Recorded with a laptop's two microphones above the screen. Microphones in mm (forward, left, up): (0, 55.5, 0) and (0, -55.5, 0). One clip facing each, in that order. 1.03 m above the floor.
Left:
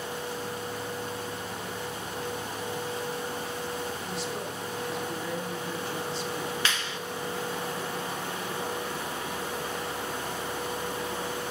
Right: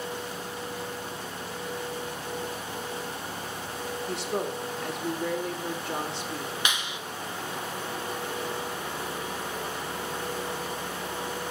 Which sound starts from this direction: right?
A woman speaking, at 4.1 s.